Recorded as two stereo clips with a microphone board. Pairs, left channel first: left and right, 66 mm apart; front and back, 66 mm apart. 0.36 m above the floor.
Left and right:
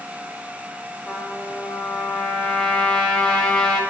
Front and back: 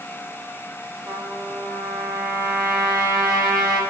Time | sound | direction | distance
1.1 | a trumpet | 165° left | 1.0 m